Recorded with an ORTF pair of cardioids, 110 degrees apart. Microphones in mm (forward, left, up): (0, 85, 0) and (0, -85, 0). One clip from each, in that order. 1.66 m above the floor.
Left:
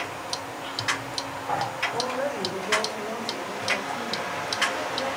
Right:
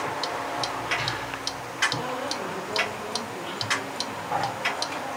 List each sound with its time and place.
1.9 s a woman speaking: 45° left, 8.5 m; by 5.2 s 40° left, 10.5 m